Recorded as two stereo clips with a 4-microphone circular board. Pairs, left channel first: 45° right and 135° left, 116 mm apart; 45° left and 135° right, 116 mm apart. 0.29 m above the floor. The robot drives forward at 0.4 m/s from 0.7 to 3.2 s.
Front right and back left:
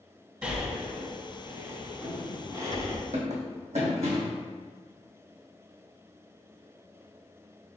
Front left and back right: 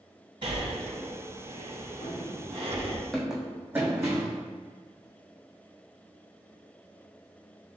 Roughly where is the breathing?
Behind right.